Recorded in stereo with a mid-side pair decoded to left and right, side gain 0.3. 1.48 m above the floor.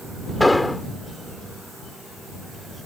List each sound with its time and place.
0.4 s an explosion: 25° left